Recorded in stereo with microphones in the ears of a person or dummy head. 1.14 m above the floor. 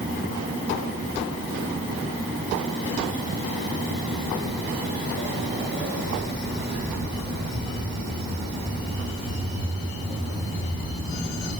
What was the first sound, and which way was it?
Footsteps, 20° right (ahead or behind).